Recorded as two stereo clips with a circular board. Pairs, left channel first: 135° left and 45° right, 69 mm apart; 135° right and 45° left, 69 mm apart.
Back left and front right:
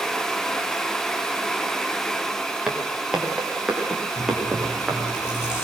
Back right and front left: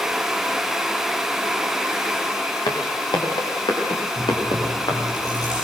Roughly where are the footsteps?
Behind right.